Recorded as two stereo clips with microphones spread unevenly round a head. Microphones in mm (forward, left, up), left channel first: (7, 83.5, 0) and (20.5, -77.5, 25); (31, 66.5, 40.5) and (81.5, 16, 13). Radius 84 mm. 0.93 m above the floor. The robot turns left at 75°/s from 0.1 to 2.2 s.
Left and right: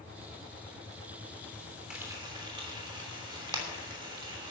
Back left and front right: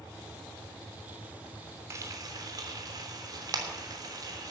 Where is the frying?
Straight ahead, 3 m; by 4.5 s 20° right, 3 m.